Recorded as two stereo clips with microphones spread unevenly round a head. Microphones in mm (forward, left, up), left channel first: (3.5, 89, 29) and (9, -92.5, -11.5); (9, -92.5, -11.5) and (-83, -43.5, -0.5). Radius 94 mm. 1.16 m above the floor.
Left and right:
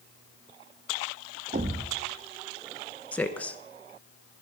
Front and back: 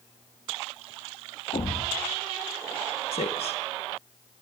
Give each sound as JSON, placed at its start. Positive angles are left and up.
{"t": 1.5, "sound": "a thud", "azimuth_deg": -30, "distance_m": 0.7}
{"t": 3.1, "sound": "a woman speaking", "azimuth_deg": 5, "distance_m": 1.1}